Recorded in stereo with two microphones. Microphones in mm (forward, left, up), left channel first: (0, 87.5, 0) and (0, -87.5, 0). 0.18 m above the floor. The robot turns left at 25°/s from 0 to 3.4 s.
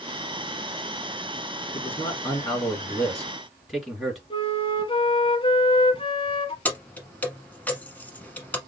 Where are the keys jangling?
10° left (ahead or behind), 1.4 m.